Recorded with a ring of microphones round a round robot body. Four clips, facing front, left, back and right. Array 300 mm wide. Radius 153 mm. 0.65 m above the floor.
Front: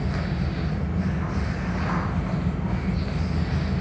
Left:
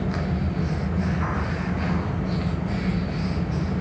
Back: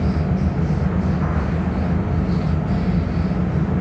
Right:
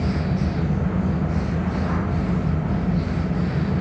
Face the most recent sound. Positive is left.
No sound to turn to.